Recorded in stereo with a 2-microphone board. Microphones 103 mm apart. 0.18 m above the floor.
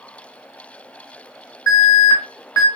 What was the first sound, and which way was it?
An alarm, 35° left (ahead or behind).